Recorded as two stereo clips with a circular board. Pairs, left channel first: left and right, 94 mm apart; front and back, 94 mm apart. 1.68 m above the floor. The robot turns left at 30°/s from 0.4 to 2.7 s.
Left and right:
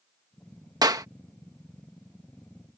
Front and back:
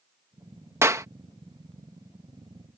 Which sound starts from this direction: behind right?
A clap, at 0.8 s.